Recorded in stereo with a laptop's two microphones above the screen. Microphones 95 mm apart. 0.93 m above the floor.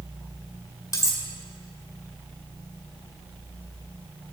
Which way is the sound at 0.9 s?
35° left (ahead or behind).